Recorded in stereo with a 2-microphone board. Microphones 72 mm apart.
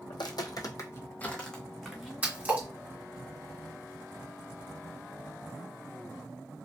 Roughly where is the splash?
Right.